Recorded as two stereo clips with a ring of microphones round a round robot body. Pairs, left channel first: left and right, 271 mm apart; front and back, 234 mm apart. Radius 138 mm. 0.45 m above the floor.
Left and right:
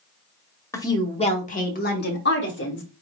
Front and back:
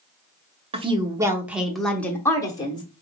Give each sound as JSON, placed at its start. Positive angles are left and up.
{"t": 0.7, "sound": "a woman speaking", "azimuth_deg": 155, "distance_m": 1.0}